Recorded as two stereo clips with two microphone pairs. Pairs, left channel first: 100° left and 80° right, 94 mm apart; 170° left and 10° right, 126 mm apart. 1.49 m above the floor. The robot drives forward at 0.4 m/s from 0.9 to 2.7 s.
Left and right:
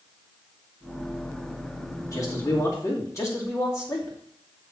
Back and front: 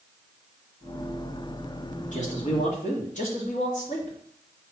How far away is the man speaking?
About 2 m.